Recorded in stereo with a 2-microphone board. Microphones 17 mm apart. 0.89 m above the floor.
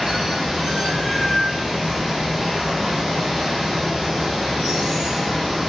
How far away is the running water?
About 1.2 m.